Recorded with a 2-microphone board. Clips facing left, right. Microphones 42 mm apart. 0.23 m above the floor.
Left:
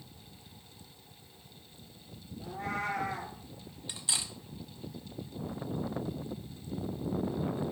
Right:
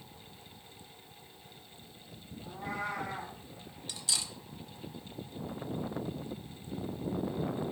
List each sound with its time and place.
2.4 s a cat meowing: 75° left (ahead or behind), 2 m
3.9 s cutlery clinking: 20° left (ahead or behind), 0.5 m